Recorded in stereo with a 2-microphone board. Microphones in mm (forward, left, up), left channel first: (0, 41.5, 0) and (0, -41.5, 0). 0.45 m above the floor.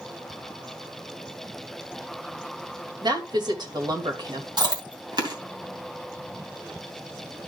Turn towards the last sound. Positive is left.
turn(degrees=-60)  # may be behind; listen again after turning